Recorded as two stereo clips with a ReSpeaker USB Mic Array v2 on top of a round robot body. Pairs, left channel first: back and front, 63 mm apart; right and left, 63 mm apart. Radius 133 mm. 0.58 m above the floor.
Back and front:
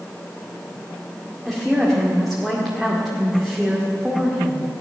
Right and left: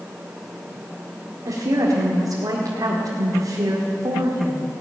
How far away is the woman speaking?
About 2 m.